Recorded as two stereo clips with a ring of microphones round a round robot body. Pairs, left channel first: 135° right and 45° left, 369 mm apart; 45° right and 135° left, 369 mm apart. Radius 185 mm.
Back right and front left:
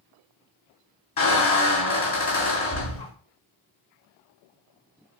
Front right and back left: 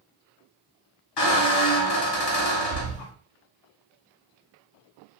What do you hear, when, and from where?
1.2 s a squeak: 65° right, 1.6 m